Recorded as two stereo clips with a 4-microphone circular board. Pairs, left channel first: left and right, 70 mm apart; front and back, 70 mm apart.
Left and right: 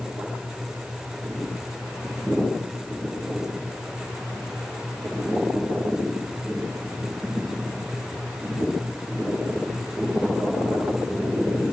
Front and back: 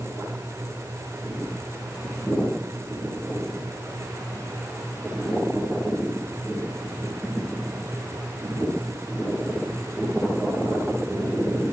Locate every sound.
Only background noise.